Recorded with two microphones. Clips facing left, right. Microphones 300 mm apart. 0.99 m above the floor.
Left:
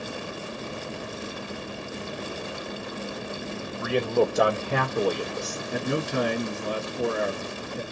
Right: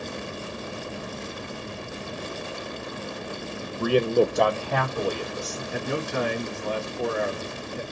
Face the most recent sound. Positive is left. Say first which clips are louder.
# left 2 dB
turn(degrees=45)  # may be behind; listen again after turning